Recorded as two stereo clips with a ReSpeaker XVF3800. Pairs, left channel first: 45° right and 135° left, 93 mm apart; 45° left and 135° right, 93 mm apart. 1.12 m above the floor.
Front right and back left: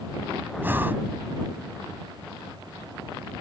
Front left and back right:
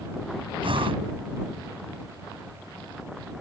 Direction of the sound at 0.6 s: 155° right.